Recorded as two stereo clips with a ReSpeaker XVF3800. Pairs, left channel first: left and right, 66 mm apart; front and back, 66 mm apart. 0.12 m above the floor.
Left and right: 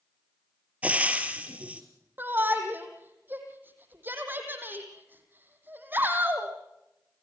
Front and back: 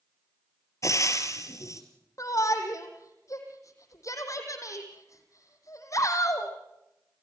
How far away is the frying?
About 2.5 m.